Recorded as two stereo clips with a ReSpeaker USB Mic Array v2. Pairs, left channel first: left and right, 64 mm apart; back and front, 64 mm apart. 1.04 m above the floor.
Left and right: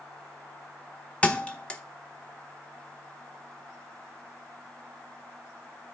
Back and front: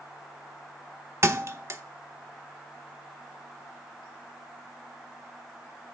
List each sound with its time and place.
1.2 s a thud: 25° left, 0.8 m